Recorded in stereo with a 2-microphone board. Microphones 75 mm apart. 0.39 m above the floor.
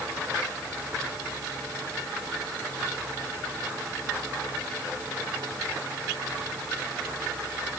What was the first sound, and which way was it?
Only background noise.